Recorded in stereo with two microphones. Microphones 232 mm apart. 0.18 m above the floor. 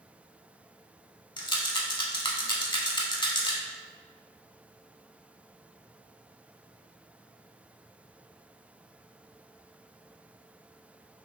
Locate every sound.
1.4 s a rattle: 20° left (ahead or behind), 0.5 m